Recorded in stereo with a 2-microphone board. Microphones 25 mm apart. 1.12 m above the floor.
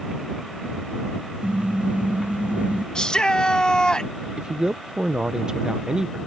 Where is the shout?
25° left (ahead or behind).